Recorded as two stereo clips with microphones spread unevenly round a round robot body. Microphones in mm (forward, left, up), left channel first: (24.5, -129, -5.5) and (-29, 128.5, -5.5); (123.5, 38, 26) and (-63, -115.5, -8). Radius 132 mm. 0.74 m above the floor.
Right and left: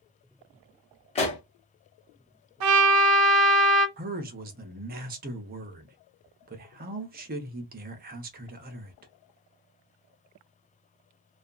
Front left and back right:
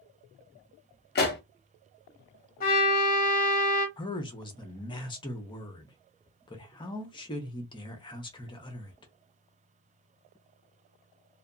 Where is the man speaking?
110° left, 0.6 m.